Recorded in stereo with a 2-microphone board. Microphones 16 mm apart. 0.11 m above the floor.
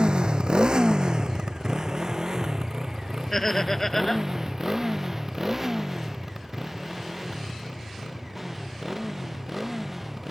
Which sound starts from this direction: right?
A motorcycle, at 0.0 s.